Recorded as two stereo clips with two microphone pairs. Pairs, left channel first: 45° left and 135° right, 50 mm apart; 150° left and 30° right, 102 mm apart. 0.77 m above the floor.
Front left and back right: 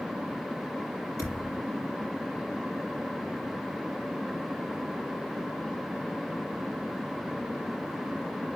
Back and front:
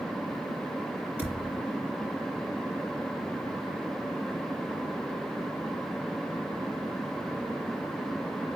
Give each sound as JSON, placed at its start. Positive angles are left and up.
{"t": 1.2, "sound": "a thud", "azimuth_deg": 45, "distance_m": 5.5}